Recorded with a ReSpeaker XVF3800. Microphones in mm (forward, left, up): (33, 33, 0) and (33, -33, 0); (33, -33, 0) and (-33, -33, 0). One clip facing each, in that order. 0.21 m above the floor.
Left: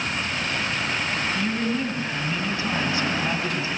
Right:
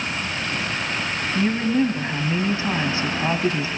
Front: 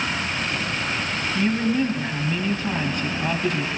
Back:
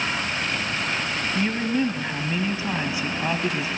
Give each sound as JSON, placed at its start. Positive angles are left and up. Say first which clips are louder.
{"t": 1.4, "sound": "a woman speaking", "louder": "right 9 dB, front 3 dB", "azimuth_deg": -105, "distance_m": 1.3}